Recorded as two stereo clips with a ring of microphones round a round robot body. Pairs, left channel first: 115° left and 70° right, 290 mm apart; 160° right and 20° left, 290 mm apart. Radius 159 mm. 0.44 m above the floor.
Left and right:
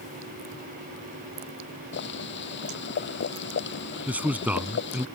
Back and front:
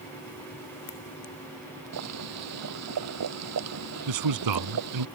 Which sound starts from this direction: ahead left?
Boiling, at 1.9 s.